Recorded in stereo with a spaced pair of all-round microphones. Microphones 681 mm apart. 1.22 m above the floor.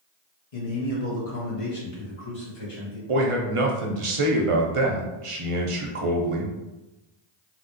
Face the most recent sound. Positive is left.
turn(degrees=-50)  # may be behind; listen again after turning